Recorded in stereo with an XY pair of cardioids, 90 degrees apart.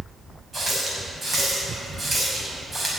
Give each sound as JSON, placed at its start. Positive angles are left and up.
{"t": 0.5, "sound": "a running tap", "azimuth_deg": -35, "distance_m": 6.0}